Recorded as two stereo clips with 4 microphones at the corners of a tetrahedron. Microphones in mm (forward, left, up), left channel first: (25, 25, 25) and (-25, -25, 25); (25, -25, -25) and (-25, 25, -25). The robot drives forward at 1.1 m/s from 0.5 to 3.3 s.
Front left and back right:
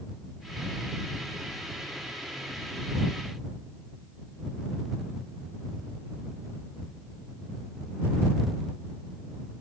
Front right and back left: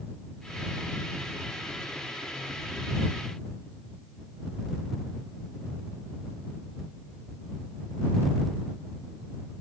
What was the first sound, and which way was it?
Only background noise.